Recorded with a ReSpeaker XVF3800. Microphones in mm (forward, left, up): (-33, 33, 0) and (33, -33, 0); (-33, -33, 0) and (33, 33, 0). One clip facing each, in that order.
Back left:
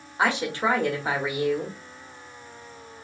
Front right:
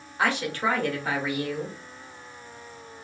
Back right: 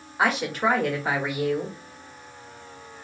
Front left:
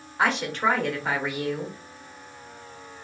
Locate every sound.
0.2 s a woman speaking: 145° left, 0.8 m